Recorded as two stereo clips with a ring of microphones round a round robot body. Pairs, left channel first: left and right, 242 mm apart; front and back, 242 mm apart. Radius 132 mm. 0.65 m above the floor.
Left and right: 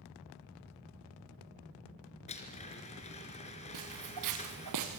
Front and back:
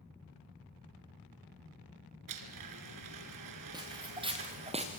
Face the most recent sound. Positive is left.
turn(degrees=-115)